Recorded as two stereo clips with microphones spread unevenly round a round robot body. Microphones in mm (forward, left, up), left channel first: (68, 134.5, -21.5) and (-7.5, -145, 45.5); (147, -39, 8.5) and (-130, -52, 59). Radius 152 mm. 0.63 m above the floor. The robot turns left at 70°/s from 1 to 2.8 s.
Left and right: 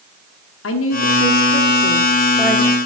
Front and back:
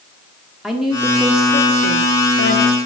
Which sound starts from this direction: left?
A woman speaking, at 0.6 s.